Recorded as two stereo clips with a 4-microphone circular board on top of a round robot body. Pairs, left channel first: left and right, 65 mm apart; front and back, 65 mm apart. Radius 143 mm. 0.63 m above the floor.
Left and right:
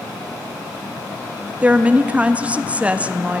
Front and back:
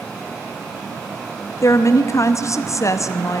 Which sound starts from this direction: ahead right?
A woman speaking, at 1.6 s.